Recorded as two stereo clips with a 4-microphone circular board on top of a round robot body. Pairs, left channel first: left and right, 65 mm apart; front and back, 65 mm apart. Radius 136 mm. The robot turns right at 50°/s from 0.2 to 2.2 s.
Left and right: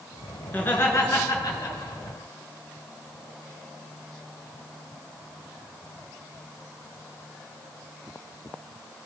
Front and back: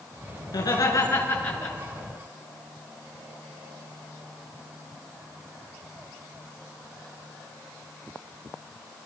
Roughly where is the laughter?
Ahead.